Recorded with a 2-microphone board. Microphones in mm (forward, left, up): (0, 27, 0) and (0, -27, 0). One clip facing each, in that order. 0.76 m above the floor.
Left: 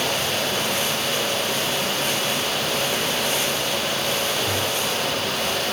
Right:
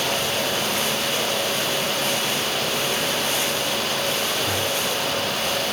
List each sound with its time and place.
Only background noise.